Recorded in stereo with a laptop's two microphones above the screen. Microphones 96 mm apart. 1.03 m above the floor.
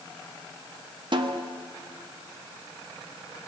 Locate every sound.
1.1 s a snare drum: 50° right (ahead or behind), 0.7 m